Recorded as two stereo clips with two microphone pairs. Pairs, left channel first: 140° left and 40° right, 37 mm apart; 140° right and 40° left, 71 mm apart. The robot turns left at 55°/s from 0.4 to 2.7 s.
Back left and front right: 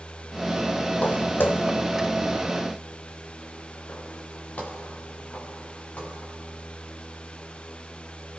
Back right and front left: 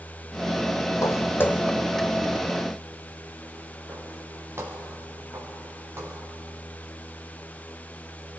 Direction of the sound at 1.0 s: 175° right.